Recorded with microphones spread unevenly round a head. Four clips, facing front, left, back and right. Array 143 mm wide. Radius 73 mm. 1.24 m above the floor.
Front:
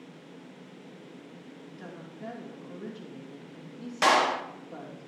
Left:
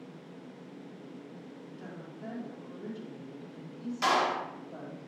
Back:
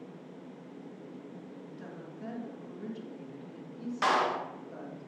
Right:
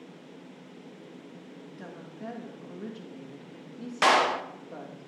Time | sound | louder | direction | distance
1.6 | a woman speaking | right 2 dB, front 1 dB | 95° right | 1.8 m
4.0 | a clap | right 5 dB, front 4 dB | 55° right | 0.7 m